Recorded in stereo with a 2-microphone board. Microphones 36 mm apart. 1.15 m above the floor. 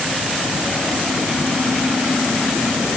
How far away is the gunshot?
I don't hear a gunshot.